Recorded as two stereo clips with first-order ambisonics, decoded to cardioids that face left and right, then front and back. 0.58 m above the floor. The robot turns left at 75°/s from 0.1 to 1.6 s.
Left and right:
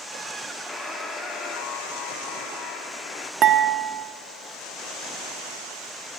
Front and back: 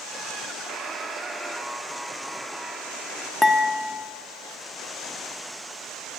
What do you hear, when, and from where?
0.7 s a buzzer: 155° left, 1.0 m; by 3.3 s 90° left, 1.0 m
3.4 s dishes clattering: 75° right, 0.5 m